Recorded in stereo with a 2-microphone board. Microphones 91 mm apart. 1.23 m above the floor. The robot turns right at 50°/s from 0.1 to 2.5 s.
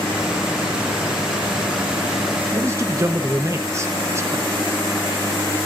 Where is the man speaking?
30° right (ahead or behind), 1.0 m.